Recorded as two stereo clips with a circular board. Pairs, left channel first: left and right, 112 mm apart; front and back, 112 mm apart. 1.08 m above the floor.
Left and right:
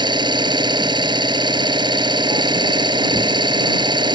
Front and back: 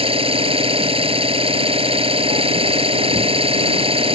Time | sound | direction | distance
0.0 | an engine running | 140° right | ?